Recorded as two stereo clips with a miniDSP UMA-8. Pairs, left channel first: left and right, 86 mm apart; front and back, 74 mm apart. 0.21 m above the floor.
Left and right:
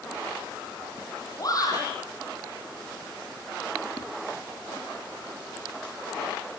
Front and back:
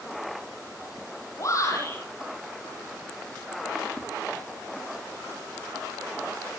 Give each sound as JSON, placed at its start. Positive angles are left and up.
{"t": 1.4, "sound": "a shout", "azimuth_deg": 45, "distance_m": 8.5}
{"t": 4.0, "sound": "a whoosh", "azimuth_deg": 145, "distance_m": 8.0}